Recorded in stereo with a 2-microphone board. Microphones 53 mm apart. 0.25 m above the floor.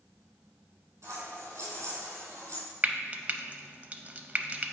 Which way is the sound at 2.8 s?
30° right (ahead or behind).